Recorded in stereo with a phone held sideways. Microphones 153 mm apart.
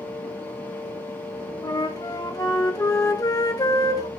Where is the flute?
25° left (ahead or behind), 1.3 m.